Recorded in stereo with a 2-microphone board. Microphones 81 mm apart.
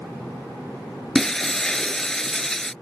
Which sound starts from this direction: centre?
Breaking glass, at 1.1 s.